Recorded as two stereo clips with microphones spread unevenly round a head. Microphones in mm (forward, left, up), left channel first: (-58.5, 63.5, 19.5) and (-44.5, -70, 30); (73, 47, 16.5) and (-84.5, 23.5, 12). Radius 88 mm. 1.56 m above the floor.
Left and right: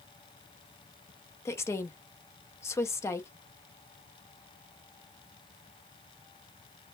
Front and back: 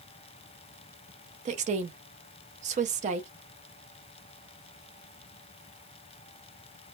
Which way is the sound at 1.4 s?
165° left.